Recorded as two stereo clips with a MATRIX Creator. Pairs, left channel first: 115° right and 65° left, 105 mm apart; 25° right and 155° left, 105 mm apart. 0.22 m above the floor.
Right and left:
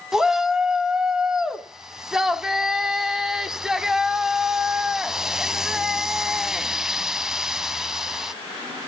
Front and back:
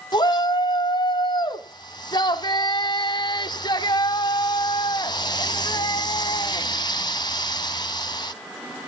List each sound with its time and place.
0.1 s a shout: 15° right, 1.3 m